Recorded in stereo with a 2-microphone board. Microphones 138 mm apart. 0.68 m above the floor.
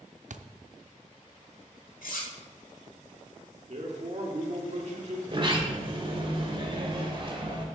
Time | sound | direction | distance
0.3 | a thud | 65° right (ahead or behind) | 0.5 m
2.0 | cutlery clinking | 80° left | 1.7 m
3.7 | a man speaking | 50° right (ahead or behind) | 1.8 m
5.3 | a sliding door | 35° right (ahead or behind) | 1.5 m